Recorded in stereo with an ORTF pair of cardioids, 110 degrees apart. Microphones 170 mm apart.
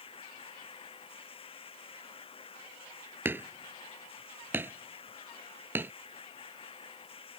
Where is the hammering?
10° right.